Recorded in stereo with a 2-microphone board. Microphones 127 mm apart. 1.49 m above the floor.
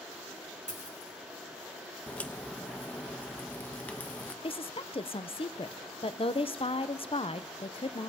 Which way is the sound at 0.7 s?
70° left (ahead or behind).